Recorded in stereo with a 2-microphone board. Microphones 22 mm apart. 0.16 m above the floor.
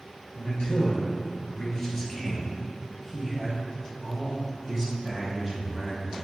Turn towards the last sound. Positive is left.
turn(degrees=-25)  # may be behind; listen again after turning